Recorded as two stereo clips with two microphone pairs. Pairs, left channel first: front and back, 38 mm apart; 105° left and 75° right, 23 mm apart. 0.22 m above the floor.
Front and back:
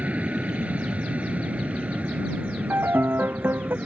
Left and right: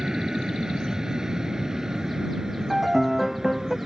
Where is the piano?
155° right.